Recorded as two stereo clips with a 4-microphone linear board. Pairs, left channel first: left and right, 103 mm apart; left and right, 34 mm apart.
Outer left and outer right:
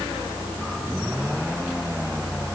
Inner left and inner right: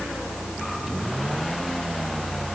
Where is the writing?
No writing in this recording.